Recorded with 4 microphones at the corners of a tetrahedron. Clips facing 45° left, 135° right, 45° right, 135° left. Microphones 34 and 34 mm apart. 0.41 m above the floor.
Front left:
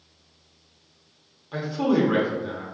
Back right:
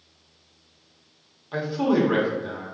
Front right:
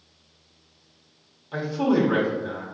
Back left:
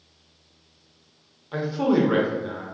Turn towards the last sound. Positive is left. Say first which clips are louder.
# back right 1 dB, back left 1 dB
turn(degrees=170)